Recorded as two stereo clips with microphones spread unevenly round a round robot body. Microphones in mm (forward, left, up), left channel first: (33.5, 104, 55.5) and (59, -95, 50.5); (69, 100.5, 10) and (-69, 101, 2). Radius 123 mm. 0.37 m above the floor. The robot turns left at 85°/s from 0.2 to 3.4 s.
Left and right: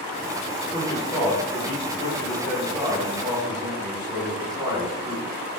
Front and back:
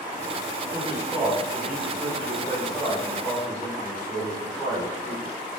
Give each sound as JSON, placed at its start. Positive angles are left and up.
{"t": 0.7, "sound": "a man speaking", "azimuth_deg": 175, "distance_m": 1.1}